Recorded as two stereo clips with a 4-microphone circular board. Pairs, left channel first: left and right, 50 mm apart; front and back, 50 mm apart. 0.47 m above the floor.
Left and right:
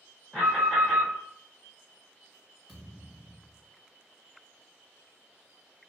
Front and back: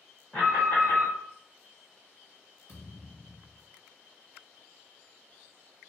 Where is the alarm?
5° left, 1.8 m.